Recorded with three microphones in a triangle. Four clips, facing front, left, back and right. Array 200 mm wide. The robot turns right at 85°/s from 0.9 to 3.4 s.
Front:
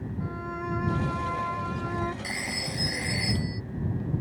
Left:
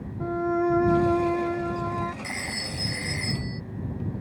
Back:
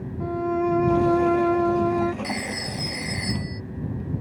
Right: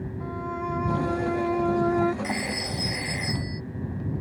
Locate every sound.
0.2 s a violin: 135° left; by 2.1 s 115° right
2.2 s a phone ringing: 135° right; by 3.6 s 35° right